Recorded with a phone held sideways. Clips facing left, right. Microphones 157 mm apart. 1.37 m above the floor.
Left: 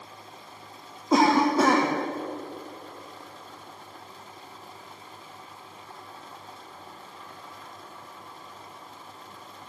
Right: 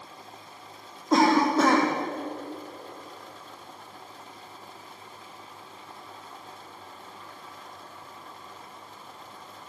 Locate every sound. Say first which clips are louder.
1.1 s a cough: even; 5° left (ahead or behind), 1.2 m